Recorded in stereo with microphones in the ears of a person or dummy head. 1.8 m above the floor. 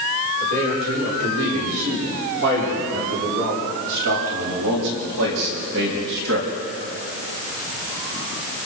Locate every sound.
0.4 s a man speaking: 75° right (ahead or behind), 7.5 m; by 6.5 s 65° right (ahead or behind), 4 m